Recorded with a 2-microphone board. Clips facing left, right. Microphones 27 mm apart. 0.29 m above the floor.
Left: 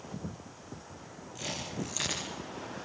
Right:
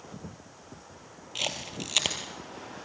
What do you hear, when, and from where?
1.4 s a camera shutter: 75° right (ahead or behind), 4 m